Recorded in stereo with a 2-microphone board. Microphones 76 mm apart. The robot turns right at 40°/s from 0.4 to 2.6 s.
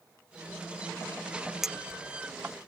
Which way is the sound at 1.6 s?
5° right (ahead or behind).